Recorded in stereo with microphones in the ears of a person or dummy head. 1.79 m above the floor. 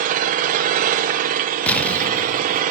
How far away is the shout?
I don't hear a shout.